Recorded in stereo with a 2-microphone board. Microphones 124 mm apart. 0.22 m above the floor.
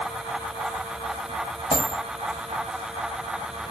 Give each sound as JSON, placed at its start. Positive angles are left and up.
{"t": 1.7, "sound": "a dropped coin", "side_deg": 55, "distance_m": 1.4}